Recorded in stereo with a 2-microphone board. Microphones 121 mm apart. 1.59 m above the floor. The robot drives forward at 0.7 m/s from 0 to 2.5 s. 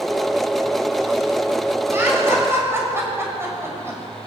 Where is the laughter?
20° right (ahead or behind), 7.5 m.